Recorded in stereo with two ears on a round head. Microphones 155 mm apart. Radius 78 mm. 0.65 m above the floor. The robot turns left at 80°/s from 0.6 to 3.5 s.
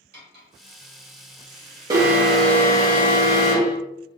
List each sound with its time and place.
0.1 s cutlery clinking: 60° right (ahead or behind), 1.8 m
1.9 s an alarm: 145° right, 1.2 m; by 3.8 s 85° left, 1.2 m